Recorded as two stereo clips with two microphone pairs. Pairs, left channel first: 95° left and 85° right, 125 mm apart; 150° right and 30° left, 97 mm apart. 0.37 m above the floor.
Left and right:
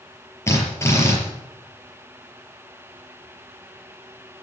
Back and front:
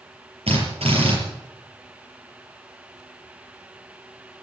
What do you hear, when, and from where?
0.5 s a drill: 25° left, 5.5 m